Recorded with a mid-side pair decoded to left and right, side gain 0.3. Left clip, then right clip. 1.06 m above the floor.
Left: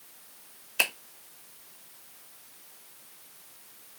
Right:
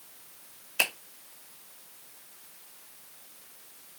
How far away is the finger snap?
About 1.3 m.